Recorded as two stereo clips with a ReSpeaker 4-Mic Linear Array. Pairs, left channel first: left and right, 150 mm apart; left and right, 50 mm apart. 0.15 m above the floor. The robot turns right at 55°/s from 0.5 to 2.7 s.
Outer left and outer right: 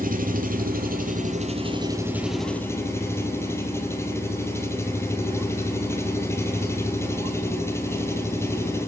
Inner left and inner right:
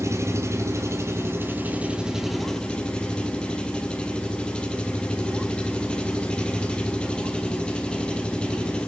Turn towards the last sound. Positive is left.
turn(degrees=20)